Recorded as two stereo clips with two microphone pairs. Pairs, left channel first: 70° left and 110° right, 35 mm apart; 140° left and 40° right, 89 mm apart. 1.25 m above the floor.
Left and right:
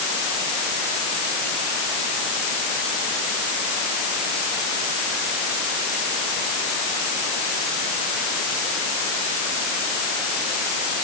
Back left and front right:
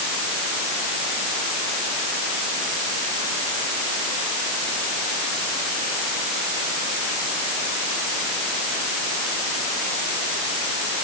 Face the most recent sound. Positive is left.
No sound to turn to.